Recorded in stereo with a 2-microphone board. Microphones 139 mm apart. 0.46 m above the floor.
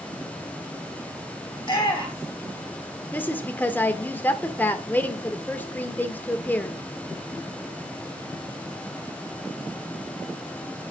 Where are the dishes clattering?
I don't hear dishes clattering.